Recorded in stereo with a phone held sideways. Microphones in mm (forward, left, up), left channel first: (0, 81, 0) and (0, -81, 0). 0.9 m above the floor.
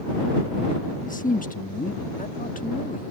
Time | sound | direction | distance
1.0 | a man speaking | 55° left (ahead or behind) | ?